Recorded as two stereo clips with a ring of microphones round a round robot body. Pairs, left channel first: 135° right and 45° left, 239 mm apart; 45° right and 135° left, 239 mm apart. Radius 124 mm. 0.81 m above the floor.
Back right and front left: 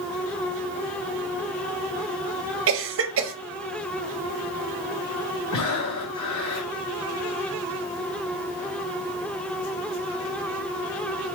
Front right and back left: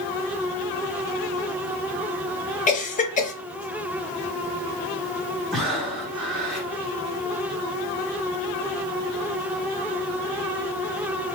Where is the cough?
15° left, 1.0 m.